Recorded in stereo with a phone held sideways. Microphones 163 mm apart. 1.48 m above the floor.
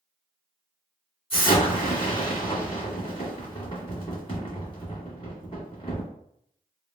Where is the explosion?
35° left (ahead or behind), 1.7 m.